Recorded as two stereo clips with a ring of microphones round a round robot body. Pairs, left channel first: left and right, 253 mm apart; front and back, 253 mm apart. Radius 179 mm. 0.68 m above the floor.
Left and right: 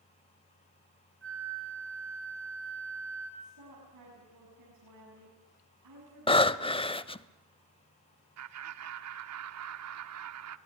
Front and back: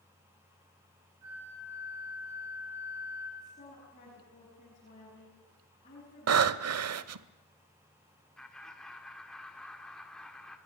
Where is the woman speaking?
70° right, 7 m.